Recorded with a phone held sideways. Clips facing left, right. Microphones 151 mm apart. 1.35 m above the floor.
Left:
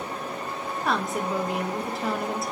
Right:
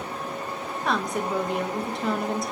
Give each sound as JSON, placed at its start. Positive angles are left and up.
{"t": 0.8, "sound": "a woman speaking", "side_deg": 0, "distance_m": 0.7}